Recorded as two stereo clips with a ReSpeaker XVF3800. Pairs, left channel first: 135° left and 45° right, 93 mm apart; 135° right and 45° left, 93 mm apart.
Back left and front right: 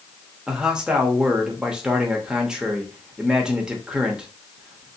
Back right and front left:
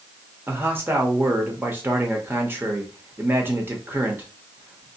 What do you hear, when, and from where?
0.5 s a man speaking: 25° left, 0.8 m